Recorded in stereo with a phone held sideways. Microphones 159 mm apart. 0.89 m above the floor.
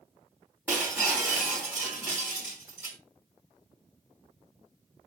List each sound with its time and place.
0.7 s breaking glass: 15° right (ahead or behind), 3 m